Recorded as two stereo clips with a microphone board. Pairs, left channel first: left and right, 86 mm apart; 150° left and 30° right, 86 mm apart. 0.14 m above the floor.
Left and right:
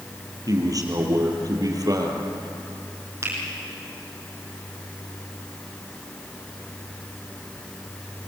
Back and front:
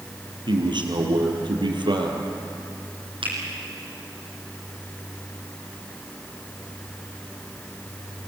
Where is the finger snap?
30° right, 6 m.